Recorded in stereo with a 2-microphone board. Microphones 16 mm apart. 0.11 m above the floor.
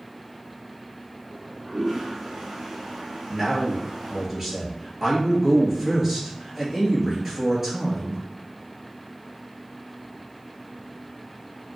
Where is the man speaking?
10° right (ahead or behind), 2.0 m.